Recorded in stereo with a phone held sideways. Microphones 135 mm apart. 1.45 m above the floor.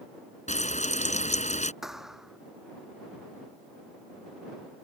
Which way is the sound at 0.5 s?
60° left (ahead or behind).